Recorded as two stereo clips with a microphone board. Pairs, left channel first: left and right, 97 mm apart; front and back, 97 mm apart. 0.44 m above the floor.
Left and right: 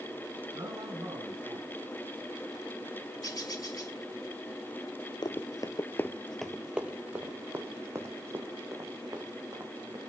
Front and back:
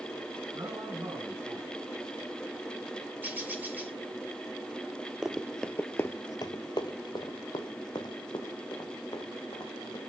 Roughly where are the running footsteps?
Left.